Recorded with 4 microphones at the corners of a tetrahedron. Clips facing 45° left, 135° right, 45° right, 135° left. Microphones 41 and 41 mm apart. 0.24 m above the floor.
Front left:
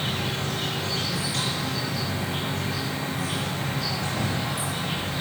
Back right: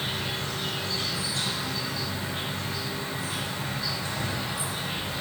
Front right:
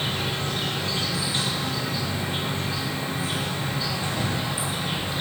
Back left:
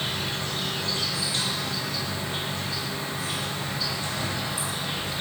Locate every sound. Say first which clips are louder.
0.0 s an insect: front left 3 dB, front right 2 dB; 20° left, 6 m